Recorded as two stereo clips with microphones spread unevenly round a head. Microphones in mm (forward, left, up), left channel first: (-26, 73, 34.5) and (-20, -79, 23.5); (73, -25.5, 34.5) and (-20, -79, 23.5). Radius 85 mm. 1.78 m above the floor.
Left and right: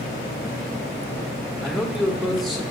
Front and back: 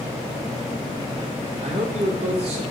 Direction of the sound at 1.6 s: Straight behind.